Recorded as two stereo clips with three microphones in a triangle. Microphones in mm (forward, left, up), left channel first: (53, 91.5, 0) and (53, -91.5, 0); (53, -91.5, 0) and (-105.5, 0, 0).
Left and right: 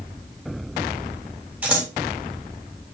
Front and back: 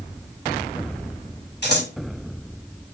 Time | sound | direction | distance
1.6 | scissors | 10° right | 3 m